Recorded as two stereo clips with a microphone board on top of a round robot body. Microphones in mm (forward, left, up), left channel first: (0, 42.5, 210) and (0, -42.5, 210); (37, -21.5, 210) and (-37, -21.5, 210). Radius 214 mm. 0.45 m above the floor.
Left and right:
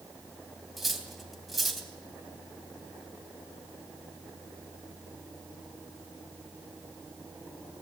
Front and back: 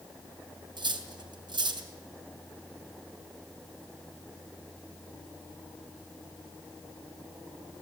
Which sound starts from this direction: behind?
Cutlery clinking, at 0.8 s.